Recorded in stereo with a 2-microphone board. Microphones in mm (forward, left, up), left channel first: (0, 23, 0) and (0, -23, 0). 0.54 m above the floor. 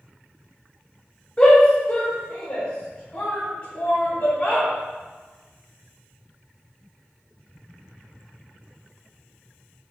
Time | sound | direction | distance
1.4 | a shout | 25° left (ahead or behind) | 1.0 m